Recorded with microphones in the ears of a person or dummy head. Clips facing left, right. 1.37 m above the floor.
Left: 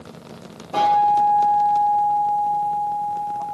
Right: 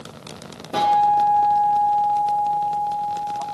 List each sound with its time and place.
0.7 s a guitar: 20° right (ahead or behind), 1.9 m